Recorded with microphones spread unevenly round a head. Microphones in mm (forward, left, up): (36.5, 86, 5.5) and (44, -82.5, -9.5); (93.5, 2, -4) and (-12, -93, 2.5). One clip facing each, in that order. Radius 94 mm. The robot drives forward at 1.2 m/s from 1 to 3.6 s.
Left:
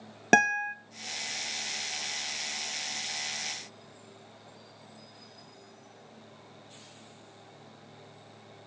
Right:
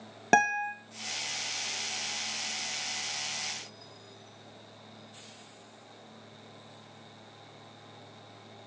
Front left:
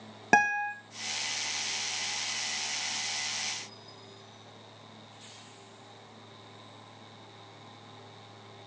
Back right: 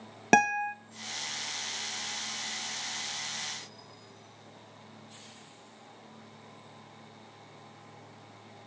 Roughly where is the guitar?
Behind.